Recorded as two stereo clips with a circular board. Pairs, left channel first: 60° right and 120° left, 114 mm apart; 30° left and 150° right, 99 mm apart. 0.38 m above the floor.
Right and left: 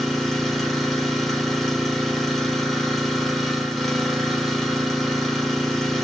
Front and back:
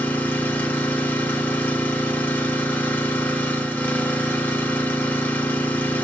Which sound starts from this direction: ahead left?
An engine running, at 0.0 s.